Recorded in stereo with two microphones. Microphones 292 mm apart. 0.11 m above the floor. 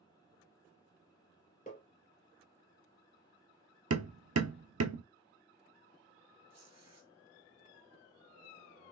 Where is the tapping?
30° left (ahead or behind), 1.4 m.